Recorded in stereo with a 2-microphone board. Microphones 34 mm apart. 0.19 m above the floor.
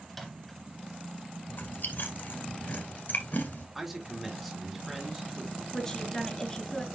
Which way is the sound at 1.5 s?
60° left (ahead or behind).